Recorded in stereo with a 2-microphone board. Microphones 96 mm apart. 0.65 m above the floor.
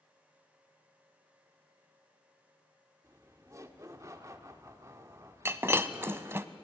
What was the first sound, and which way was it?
Laughter, 35° right (ahead or behind).